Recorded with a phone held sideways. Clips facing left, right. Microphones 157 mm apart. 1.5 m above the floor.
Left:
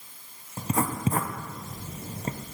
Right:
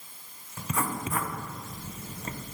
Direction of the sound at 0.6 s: 35° left (ahead or behind).